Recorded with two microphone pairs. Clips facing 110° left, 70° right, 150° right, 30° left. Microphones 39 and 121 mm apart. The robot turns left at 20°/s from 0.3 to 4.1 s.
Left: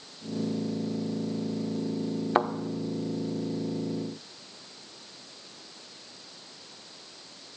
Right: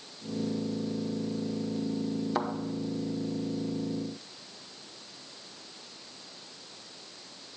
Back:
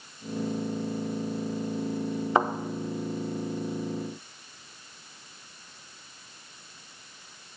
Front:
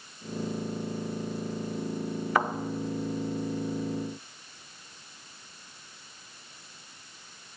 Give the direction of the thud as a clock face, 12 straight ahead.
7 o'clock.